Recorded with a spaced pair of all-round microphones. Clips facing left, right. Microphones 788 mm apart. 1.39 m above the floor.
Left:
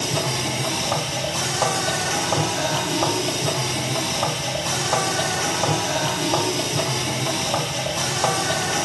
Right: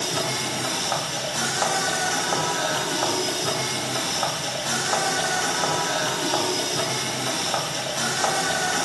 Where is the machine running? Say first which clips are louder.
Left 3 dB; 55° left (ahead or behind), 2.5 m.